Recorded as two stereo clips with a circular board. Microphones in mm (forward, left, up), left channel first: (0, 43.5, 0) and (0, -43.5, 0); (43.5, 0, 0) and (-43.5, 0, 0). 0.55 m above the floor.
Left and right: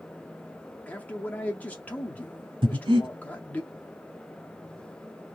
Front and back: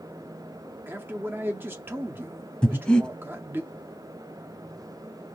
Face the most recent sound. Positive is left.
turn(degrees=-80)